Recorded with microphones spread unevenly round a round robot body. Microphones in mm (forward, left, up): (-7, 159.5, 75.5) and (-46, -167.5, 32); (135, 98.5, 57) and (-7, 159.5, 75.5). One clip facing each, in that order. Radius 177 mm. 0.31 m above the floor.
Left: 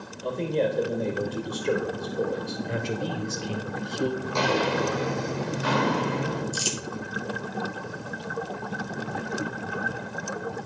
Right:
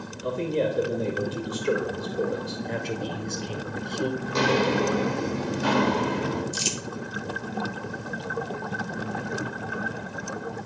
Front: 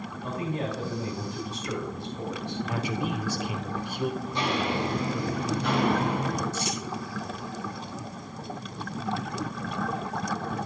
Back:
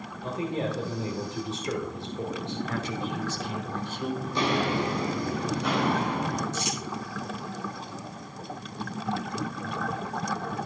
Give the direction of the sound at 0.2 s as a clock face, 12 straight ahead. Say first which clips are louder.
Even, back 2 dB; 5 o'clock.